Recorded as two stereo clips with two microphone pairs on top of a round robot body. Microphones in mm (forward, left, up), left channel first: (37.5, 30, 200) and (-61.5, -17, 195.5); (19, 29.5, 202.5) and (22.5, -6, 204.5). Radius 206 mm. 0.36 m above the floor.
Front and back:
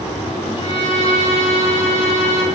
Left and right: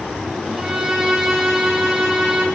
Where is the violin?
10° right, 4 m.